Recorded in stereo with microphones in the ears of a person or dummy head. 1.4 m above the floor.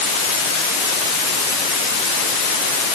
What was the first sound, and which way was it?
Only background noise.